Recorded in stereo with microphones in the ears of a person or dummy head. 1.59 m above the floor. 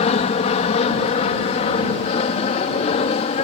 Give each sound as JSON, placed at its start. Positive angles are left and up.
{"t": 0.0, "sound": "an aircraft", "side_deg": 35}